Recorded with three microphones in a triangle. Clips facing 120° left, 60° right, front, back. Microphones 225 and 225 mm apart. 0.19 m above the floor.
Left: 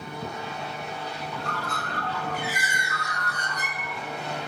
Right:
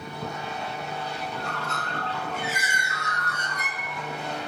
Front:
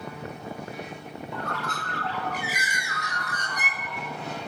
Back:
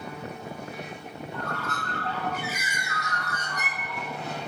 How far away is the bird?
About 0.6 m.